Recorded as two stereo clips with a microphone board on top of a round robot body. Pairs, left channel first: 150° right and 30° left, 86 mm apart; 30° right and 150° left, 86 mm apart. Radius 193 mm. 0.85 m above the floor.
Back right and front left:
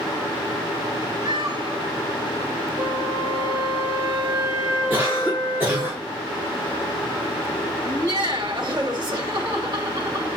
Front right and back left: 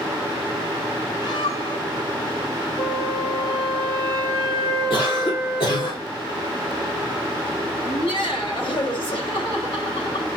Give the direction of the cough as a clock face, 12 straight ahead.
1 o'clock.